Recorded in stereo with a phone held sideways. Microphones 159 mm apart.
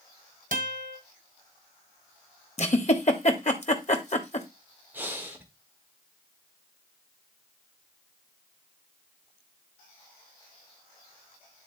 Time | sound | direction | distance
0.5 | a guitar | 55° right (ahead or behind) | 1.7 m
2.6 | a giggle | 45° left (ahead or behind) | 1.2 m
4.9 | breathing | 15° right (ahead or behind) | 1.4 m